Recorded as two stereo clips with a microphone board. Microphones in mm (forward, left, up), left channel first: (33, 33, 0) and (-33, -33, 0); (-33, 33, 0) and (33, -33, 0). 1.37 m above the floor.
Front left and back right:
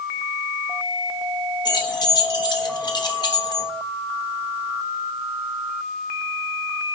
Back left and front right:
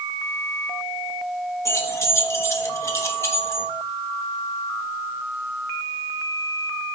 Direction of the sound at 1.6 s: 80° left.